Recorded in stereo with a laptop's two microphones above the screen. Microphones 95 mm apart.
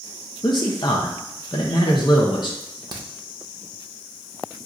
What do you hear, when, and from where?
0.4 s a man speaking: 50° left (ahead or behind), 0.6 m
2.6 s a crack: 45° right (ahead or behind), 0.7 m